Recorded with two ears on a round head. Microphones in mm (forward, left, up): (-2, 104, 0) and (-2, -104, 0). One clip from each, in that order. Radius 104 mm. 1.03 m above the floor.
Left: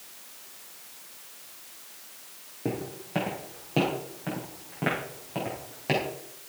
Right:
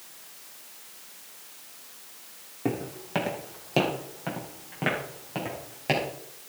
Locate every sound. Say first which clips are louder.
2.6 s footsteps: right 2 dB; 40° right (ahead or behind), 3 m; by 6.1 s 10° right (ahead or behind), 4.5 m